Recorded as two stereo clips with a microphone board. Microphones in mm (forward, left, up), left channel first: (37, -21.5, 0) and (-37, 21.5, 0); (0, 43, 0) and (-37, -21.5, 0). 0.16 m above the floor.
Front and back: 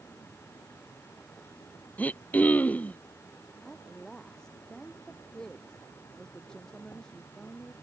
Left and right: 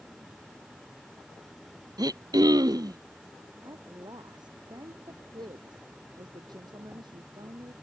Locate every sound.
0.0 s an insect: 65° right
2.0 s throat clearing: 100° right
3.6 s a woman speaking: 110° right